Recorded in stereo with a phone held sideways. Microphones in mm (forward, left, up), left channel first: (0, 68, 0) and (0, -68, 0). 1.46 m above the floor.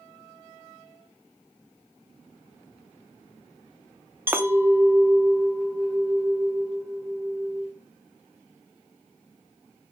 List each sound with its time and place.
4.3 s a clink: 15° right (ahead or behind), 0.5 m